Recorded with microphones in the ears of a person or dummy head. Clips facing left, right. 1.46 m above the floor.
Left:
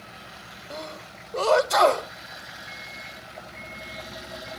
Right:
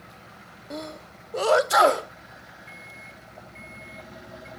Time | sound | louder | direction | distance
0.7 | a sneeze | right 2 dB | 5° right (ahead or behind) | 0.8 m
2.7 | a microwave | left 3 dB | 30° right (ahead or behind) | 3 m